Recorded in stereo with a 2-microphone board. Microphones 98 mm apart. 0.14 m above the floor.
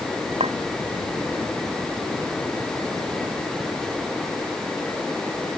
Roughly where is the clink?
Right.